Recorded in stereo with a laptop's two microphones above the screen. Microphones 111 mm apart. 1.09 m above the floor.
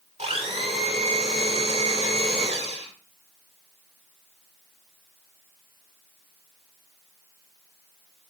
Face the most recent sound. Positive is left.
turn(degrees=-85)